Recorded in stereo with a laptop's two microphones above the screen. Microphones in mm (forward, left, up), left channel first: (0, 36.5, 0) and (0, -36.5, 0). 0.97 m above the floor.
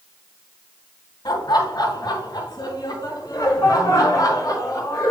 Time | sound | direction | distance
1.2 | laughter | 70° left (ahead or behind) | 2.5 m